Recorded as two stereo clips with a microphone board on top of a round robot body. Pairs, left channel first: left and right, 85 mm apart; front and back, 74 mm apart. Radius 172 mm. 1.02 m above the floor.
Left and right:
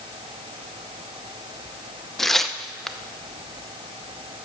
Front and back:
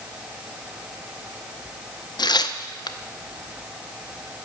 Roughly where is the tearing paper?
Ahead.